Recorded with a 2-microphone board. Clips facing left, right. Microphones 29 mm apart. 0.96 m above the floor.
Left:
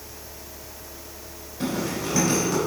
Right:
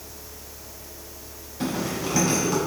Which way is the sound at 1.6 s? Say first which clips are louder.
Even; 5° right (ahead or behind).